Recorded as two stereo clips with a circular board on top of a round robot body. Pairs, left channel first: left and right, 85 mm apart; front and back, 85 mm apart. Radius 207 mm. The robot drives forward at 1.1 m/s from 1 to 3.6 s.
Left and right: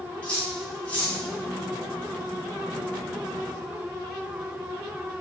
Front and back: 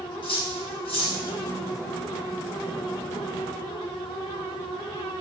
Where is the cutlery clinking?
15° left, 8 m.